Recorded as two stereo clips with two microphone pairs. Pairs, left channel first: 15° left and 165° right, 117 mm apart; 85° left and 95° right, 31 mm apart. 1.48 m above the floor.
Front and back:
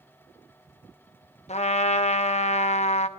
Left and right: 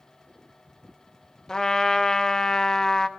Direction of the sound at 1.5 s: 20° left.